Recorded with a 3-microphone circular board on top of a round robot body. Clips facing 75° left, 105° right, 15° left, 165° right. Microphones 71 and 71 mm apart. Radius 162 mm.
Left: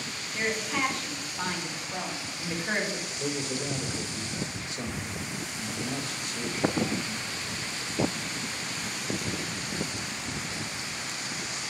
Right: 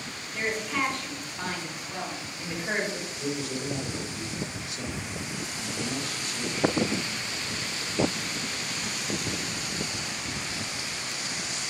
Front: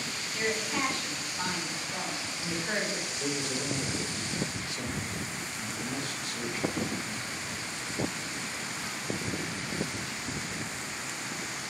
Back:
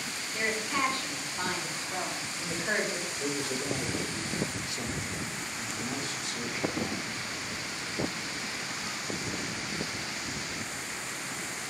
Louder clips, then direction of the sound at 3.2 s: Even, even; 130° left.